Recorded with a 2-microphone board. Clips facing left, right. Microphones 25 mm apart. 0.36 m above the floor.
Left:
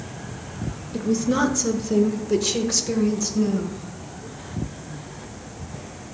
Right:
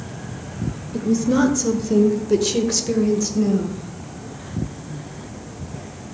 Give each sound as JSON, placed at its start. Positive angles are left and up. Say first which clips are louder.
{"t": 0.9, "sound": "a woman speaking", "louder": "right 3 dB", "side_deg": 0, "distance_m": 0.9}